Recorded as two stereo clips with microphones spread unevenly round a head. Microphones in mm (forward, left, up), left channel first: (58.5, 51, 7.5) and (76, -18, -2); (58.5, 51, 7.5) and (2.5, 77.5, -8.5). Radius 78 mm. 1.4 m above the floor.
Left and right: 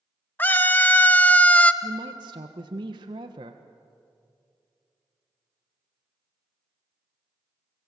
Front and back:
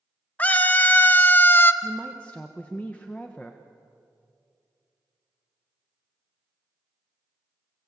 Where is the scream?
40° left, 2 m; by 1.7 s 30° left, 1.4 m.